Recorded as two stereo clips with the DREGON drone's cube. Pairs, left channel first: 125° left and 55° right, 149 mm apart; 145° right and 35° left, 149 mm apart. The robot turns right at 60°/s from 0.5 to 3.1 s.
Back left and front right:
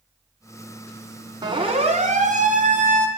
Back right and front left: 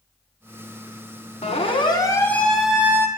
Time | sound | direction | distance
1.4 | a siren | 115° right | 2.5 m